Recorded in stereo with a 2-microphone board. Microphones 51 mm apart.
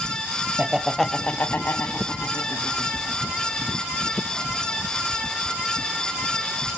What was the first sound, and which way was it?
Laughter, 30° right (ahead or behind).